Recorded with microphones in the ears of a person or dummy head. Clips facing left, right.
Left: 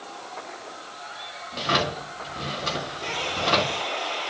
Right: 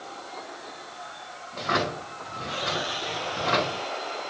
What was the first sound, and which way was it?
A drawer, 40° left (ahead or behind).